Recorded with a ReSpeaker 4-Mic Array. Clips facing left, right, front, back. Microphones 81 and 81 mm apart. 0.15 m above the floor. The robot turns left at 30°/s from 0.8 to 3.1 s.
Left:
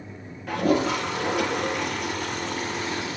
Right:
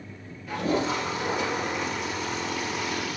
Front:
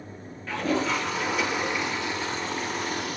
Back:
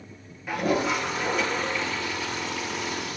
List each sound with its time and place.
0.5 s a toilet flushing: 100° left, 3 m; by 3.2 s 35° left, 3 m